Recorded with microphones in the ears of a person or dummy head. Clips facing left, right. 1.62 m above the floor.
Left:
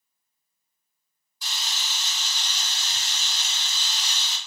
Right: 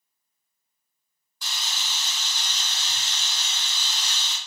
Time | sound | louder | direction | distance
1.4 | a camera shutter | even | 50° right (ahead or behind) | 2 m